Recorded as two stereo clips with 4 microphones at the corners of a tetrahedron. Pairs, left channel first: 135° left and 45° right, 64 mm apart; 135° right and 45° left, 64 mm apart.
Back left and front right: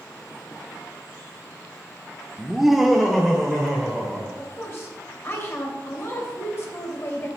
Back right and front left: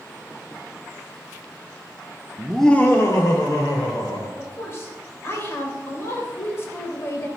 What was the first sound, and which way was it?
Laughter, 30° left.